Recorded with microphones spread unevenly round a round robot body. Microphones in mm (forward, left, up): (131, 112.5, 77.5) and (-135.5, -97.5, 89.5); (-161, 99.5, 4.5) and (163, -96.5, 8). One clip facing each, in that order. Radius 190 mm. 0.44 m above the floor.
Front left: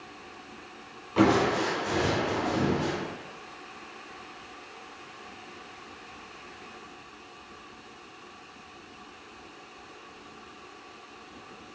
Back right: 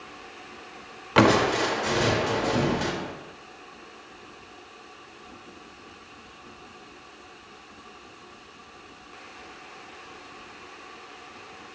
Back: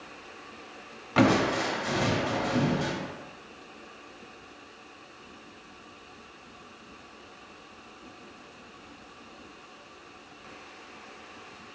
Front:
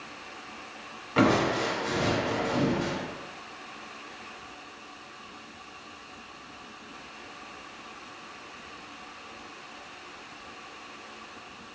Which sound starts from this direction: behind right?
Crushing, at 1.2 s.